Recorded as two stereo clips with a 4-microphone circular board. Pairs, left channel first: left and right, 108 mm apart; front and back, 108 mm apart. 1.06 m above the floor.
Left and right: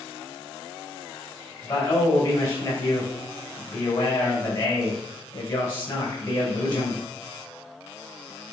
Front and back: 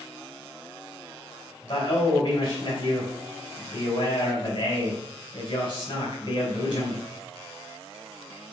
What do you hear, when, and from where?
1.6 s a man speaking: 45° left, 3.5 m